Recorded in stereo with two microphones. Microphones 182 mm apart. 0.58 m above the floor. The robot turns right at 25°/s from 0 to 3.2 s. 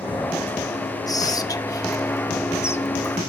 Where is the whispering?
20° left (ahead or behind), 1.0 m; by 3.2 s 10° left (ahead or behind), 1.0 m.